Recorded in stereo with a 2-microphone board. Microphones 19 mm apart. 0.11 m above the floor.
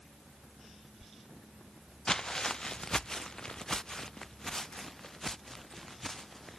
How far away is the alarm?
No alarm in this recording.